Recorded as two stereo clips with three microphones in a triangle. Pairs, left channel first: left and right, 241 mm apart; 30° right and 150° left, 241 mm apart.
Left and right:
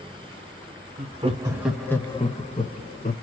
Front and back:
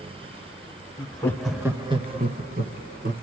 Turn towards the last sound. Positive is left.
turn(degrees=125)